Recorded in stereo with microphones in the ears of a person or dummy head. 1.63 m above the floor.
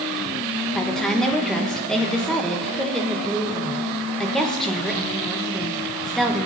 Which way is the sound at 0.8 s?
5° left (ahead or behind).